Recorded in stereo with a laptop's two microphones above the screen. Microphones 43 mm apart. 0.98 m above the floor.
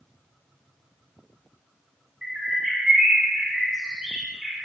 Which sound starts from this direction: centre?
A bird, at 2.2 s.